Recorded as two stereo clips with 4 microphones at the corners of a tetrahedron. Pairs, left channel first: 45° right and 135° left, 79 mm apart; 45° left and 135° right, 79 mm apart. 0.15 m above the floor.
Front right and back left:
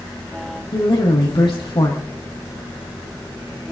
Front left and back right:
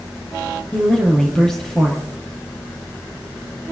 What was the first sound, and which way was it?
A woman speaking, 40° right.